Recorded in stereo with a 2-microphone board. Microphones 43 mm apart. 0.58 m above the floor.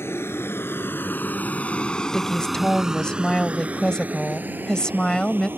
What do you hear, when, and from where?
0.0 s a vehicle: 75° left (ahead or behind); by 5.6 s 50° right (ahead or behind)
2.1 s a woman speaking: 15° left (ahead or behind)